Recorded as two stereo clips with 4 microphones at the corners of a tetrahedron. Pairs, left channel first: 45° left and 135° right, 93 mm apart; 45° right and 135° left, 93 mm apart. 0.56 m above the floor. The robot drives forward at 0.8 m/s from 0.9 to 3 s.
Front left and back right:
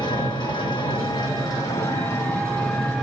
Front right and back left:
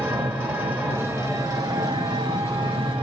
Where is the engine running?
75° left, 1.6 m; by 3.0 s 130° left, 2.0 m.